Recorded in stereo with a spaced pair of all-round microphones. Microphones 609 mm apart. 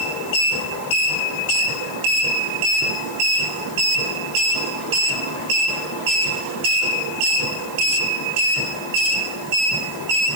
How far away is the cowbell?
No cowbell in this recording.